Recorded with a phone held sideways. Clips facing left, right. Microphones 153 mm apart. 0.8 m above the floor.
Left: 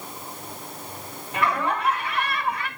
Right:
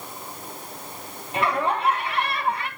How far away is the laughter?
About 3 m.